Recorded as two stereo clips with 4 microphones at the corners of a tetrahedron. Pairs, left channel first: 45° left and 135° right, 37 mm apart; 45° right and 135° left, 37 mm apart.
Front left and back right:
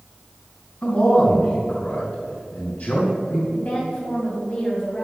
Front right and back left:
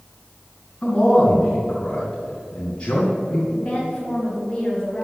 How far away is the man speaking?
About 3 m.